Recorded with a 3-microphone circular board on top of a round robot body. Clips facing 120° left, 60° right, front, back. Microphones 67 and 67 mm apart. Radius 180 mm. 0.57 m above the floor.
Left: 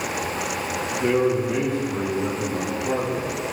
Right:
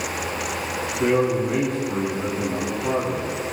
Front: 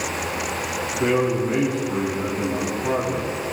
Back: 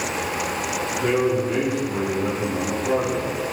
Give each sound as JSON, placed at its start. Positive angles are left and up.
{"t": 1.0, "sound": "a man speaking", "azimuth_deg": -40, "distance_m": 5.0}